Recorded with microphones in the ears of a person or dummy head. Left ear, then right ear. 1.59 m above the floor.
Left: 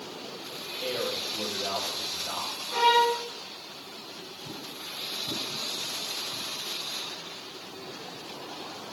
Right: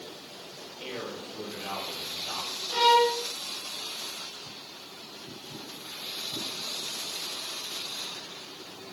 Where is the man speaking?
20° right (ahead or behind), 4.5 m.